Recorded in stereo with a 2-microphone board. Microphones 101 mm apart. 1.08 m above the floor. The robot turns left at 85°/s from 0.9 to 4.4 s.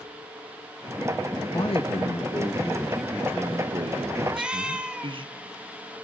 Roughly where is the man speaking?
Behind left.